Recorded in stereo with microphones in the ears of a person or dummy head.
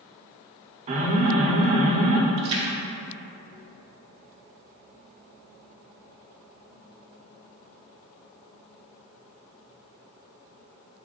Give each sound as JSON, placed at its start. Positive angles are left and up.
{"t": 0.9, "sound": "an alarm", "side_deg": -40, "distance_m": 1.2}
{"t": 2.4, "sound": "a splash", "side_deg": -30, "distance_m": 1.6}